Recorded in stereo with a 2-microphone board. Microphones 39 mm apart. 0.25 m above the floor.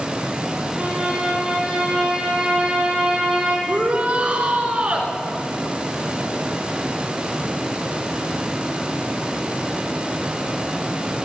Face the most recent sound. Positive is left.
turn(degrees=-35)  # may be behind; listen again after turning